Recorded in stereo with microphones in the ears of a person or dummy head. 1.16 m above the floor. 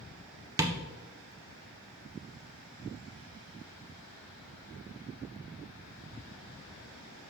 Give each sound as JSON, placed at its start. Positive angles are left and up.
{"t": 0.6, "sound": "tapping", "side_deg": -15, "distance_m": 0.6}